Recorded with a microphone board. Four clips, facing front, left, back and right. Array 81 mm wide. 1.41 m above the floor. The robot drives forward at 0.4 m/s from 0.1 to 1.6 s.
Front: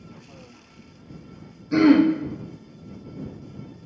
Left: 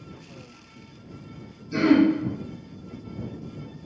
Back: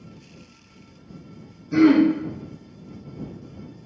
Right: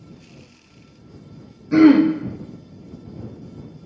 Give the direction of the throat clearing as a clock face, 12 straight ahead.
2 o'clock.